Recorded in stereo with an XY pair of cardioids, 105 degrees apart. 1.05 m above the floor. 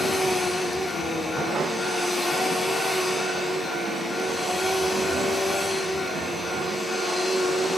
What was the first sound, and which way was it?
A machine running, 5° left.